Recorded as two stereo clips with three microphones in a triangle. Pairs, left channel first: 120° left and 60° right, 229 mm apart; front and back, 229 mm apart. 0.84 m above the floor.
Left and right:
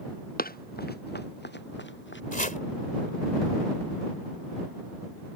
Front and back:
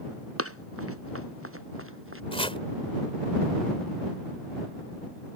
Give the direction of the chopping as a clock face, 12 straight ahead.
10 o'clock.